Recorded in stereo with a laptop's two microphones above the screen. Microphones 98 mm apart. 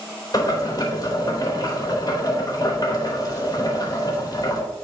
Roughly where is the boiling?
Left.